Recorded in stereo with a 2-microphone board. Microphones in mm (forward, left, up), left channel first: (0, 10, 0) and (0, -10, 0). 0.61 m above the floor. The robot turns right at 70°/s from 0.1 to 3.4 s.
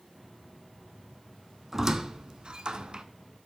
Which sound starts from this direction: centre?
A squeak, at 1.7 s.